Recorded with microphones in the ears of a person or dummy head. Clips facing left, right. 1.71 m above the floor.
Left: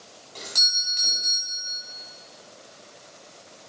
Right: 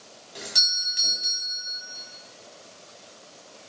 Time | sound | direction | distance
0.3 | a doorbell | 10° right (ahead or behind) | 1.0 m